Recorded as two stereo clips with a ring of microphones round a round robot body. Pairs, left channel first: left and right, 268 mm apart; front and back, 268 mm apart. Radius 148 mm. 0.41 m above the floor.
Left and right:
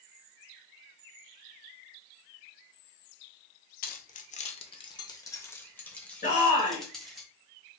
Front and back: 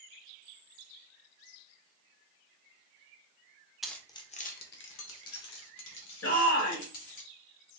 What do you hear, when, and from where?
3.8 s keys jangling: 90° left, 0.7 m; by 7.2 s straight ahead, 1.9 m
6.2 s a shout: 30° left, 2.5 m